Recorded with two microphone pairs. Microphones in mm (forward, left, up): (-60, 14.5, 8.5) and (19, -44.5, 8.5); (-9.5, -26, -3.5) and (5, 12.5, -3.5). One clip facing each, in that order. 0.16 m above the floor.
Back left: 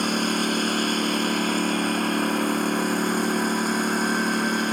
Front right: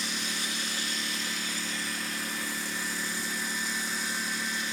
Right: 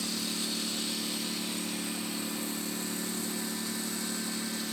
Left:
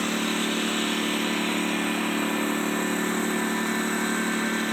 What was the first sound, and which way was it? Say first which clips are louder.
A lawn mower: back left 13 dB, left 10 dB; 110° left.